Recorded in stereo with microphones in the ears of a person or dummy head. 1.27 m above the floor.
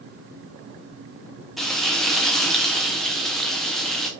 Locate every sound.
1.6 s frying: centre (ahead or behind), 0.8 m